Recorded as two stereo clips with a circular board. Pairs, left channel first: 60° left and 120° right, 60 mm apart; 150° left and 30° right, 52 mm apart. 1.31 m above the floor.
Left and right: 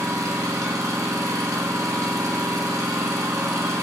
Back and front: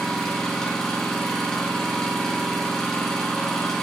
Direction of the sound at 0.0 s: 130° right.